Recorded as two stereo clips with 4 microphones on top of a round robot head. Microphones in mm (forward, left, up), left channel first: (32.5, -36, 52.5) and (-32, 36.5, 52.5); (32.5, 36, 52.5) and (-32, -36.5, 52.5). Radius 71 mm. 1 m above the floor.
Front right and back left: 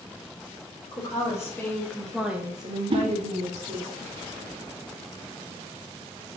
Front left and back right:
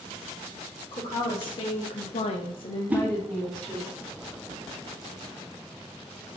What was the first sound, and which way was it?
A woman speaking, 10° left.